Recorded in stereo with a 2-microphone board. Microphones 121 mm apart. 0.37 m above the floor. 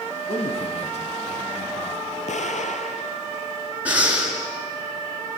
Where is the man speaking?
55° left (ahead or behind), 3 m.